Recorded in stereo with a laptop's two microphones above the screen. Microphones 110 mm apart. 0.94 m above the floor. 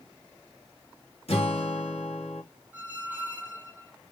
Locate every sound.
1.3 s a guitar: 70° left (ahead or behind), 1.9 m
2.7 s a squeak: 15° right (ahead or behind), 1.1 m